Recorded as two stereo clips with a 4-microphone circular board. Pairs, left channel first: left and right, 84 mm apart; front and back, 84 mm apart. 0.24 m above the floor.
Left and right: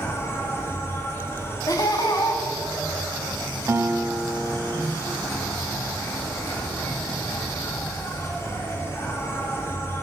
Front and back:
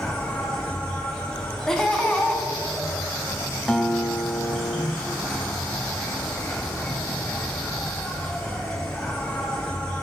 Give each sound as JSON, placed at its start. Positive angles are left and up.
{"t": 0.0, "sound": "an insect", "azimuth_deg": 75, "distance_m": 1.9}
{"t": 1.7, "sound": "laughter", "azimuth_deg": 80, "distance_m": 1.6}
{"t": 3.7, "sound": "a guitar", "azimuth_deg": -85, "distance_m": 0.9}